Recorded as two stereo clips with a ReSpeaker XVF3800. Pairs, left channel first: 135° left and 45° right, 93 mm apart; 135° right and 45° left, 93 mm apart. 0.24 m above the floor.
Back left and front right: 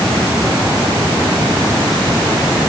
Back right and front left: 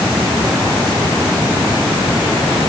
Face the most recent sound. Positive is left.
No sound to turn to.